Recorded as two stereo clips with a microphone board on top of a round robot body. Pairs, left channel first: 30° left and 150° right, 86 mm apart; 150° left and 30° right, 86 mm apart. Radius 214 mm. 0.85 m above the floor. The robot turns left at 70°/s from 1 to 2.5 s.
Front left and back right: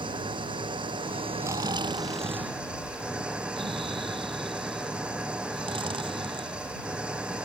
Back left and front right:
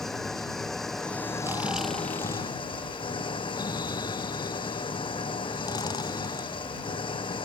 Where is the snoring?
90° right; by 7.4 s 165° right.